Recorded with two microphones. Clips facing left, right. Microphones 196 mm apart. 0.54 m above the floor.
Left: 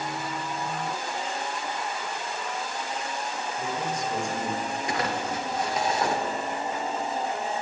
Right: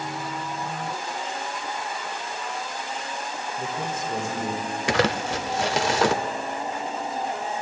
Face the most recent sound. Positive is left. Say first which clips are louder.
# right 8 dB
turn(degrees=-90)